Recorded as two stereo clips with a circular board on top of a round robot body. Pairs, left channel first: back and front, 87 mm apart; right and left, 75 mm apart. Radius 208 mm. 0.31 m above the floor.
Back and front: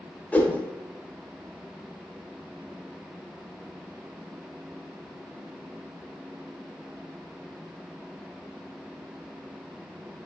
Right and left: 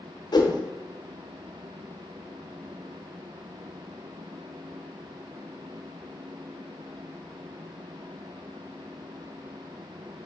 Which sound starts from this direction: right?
A whoosh, at 0.3 s.